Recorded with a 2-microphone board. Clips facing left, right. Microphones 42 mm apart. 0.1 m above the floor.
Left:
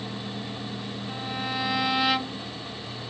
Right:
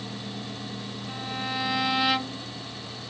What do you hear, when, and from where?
1.1 s a violin: 5° left (ahead or behind)